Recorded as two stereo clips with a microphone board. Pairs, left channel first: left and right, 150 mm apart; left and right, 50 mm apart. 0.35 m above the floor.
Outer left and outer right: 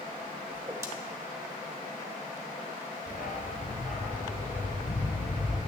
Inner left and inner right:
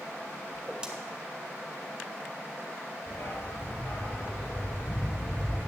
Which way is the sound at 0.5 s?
20° right (ahead or behind).